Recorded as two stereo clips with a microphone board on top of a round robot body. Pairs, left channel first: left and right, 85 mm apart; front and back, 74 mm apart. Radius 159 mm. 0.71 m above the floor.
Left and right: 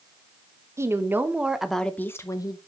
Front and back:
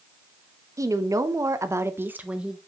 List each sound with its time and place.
0.8 s a woman speaking: 145° right, 1.4 m; by 2.6 s 100° left, 1.1 m